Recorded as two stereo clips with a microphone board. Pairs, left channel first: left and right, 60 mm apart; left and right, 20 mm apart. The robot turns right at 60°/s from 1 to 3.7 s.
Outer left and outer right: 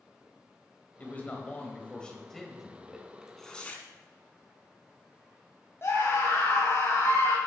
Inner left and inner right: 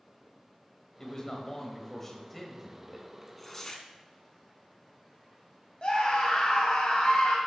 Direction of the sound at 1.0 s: 25° left (ahead or behind).